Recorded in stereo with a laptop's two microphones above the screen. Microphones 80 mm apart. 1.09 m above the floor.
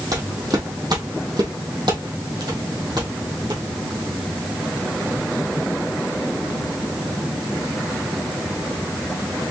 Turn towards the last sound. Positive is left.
turn(degrees=-60)  # may be behind; listen again after turning